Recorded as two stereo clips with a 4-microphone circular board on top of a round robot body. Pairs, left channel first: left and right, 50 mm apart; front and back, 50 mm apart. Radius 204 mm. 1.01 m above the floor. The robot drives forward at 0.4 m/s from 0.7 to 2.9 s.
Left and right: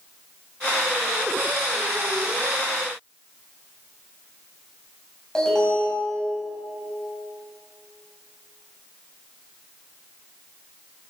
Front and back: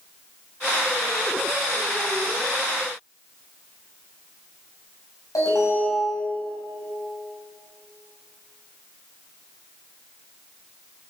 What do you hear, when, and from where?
5.3 s an alarm: 10° left, 10 m